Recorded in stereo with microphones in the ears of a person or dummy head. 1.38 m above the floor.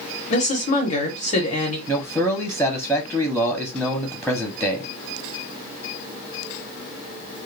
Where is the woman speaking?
40° left (ahead or behind), 0.9 m.